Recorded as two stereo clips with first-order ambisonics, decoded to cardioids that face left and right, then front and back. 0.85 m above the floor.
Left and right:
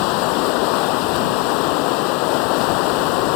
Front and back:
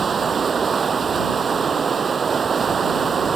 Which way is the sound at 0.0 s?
110° left.